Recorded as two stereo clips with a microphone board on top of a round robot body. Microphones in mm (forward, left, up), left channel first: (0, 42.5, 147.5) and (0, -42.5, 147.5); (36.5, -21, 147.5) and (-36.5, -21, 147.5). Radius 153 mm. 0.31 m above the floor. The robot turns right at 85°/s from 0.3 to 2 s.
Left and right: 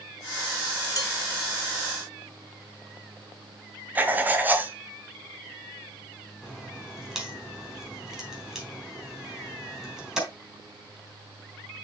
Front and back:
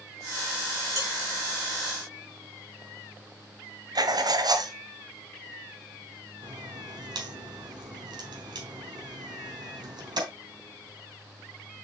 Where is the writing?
160° right, 1.5 m.